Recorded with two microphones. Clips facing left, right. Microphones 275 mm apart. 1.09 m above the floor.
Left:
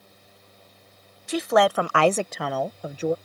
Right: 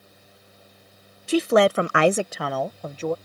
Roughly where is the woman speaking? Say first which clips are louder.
Right 3 dB; right.